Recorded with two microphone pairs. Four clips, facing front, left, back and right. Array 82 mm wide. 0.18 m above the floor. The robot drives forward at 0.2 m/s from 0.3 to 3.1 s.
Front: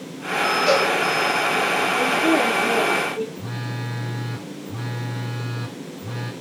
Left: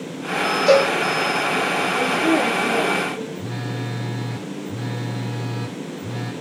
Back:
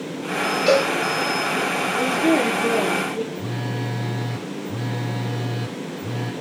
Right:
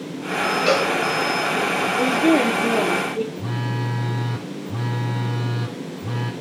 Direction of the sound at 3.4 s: 95° right.